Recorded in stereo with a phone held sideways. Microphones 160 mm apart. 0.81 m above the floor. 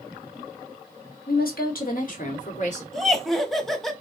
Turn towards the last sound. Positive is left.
turn(degrees=0)  # may be behind; listen again after turning